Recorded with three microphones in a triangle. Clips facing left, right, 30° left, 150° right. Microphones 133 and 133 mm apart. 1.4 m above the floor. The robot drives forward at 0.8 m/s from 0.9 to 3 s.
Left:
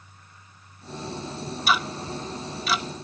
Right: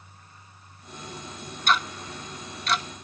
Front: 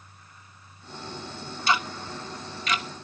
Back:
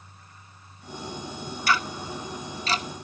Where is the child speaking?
I don't hear a child speaking.